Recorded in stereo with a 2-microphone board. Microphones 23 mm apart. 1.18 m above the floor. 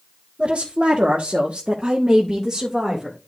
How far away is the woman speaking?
About 1.4 m.